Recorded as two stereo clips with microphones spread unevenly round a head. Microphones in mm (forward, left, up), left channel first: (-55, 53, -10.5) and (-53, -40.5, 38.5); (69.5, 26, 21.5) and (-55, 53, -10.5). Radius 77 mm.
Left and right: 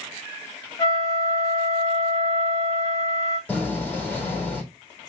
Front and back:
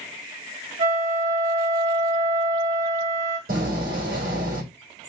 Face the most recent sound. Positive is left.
turn(degrees=170)